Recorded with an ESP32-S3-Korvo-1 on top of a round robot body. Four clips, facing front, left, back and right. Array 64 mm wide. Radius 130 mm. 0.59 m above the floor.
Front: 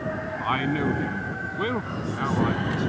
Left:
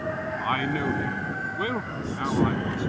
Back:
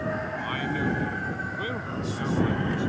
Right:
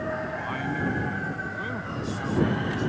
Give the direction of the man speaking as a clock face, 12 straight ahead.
10 o'clock.